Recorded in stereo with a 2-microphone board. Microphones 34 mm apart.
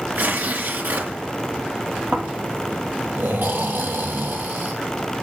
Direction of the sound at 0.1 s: 70° right (ahead or behind).